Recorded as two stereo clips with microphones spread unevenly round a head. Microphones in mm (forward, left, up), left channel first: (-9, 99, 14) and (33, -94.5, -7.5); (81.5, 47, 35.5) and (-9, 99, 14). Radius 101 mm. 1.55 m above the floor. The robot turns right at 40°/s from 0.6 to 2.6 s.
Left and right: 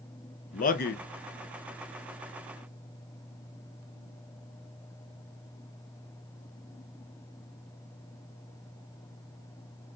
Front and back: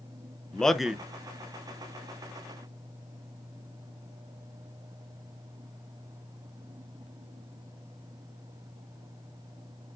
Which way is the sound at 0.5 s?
50° left.